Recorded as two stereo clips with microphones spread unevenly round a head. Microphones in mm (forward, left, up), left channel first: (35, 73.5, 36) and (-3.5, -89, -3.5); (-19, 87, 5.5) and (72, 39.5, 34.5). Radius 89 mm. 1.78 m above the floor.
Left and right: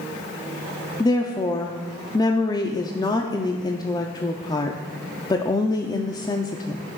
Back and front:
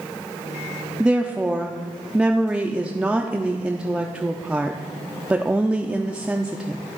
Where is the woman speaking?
35° left, 0.5 m.